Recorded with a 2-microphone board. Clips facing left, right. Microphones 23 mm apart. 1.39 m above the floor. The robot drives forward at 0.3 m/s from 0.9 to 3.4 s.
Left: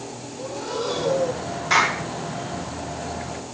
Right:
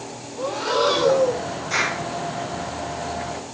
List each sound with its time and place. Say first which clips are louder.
0.4 s breathing: right 8 dB; 65° right (ahead or behind), 1.4 m; by 1.5 s 60° right (ahead or behind), 1.5 m
1.7 s a clap: left 4 dB; 35° left (ahead or behind), 8.5 m